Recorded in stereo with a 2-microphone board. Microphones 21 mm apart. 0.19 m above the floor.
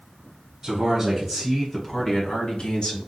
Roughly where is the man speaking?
Right.